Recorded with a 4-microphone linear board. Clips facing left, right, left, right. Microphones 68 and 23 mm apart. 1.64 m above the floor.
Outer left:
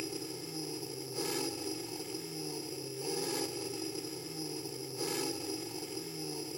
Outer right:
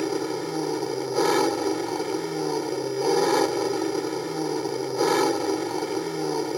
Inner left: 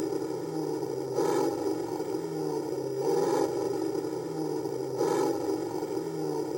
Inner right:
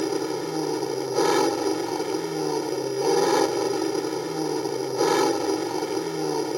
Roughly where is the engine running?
Right.